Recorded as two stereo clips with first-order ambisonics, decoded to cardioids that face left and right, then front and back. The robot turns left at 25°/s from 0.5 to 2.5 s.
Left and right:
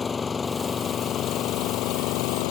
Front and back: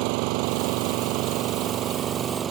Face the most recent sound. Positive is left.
turn(degrees=115)